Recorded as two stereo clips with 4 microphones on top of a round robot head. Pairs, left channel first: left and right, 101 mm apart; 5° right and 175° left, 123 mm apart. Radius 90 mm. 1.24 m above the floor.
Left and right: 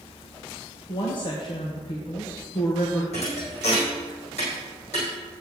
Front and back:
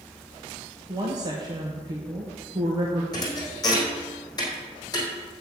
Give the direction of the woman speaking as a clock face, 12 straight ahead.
8 o'clock.